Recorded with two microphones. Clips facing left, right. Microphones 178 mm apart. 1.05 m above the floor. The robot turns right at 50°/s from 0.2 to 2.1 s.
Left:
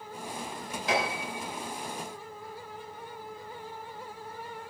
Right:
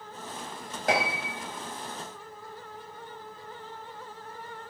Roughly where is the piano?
Right.